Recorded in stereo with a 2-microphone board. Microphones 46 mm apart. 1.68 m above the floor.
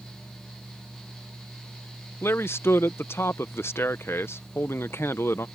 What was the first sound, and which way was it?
A man speaking, 60° left (ahead or behind).